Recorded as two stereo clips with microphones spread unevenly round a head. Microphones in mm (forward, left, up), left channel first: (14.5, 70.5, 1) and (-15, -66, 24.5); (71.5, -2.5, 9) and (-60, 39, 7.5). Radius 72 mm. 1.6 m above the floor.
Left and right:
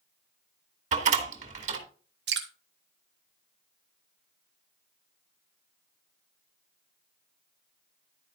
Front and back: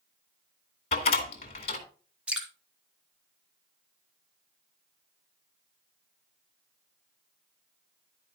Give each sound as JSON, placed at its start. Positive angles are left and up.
{"t": 0.9, "sound": "a door slam", "azimuth_deg": -70, "distance_m": 2.0}
{"t": 2.3, "sound": "dripping", "azimuth_deg": -115, "distance_m": 1.8}